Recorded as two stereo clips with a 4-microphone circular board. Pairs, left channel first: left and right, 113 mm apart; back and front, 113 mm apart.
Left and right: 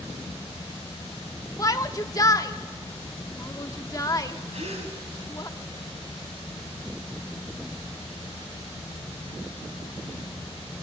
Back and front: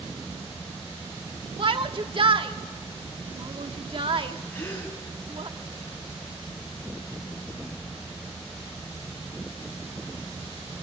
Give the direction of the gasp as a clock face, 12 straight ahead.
4 o'clock.